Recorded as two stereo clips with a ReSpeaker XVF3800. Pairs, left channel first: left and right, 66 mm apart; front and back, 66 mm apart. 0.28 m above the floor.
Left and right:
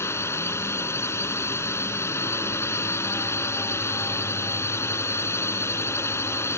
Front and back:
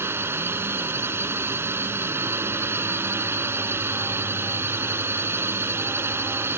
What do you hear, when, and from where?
0.0 s a drone: 135° left